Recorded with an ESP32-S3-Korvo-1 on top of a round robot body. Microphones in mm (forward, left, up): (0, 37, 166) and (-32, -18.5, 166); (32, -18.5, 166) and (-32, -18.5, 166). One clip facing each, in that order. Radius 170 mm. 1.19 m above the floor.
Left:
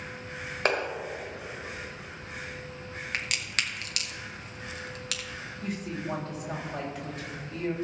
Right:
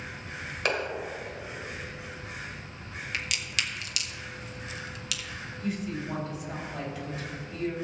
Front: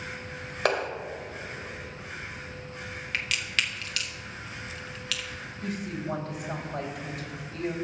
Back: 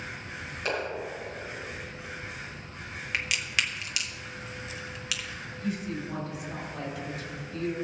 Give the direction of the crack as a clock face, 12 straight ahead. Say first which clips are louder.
Left 1 dB, even; 9 o'clock.